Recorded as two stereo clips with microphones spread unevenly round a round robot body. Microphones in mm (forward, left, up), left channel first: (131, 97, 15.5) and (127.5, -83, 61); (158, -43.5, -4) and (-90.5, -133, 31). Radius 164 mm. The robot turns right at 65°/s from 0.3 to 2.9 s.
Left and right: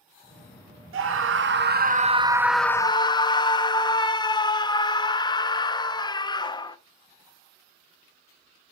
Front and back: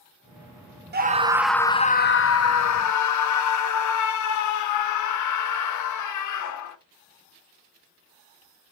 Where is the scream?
105° right, 0.9 m; by 6.8 s 25° left, 0.9 m.